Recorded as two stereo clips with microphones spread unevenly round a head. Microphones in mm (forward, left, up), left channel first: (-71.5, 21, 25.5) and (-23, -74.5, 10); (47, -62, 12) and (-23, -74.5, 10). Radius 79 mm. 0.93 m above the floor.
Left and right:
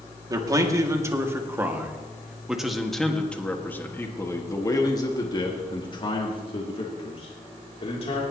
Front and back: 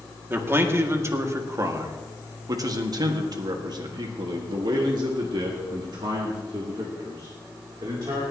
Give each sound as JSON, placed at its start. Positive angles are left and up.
{"t": 0.3, "sound": "a man speaking", "azimuth_deg": -115, "distance_m": 2.5}